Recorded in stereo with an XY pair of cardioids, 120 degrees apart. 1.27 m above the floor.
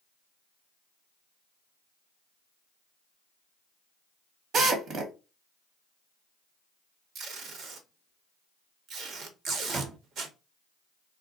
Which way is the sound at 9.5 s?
35° right.